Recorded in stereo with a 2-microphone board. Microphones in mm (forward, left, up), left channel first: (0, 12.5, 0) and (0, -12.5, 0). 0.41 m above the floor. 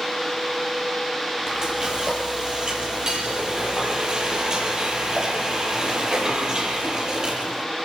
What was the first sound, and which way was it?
Frying, 30° right (ahead or behind).